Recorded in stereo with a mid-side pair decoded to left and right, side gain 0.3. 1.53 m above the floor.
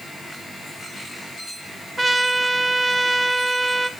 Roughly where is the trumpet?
Ahead right.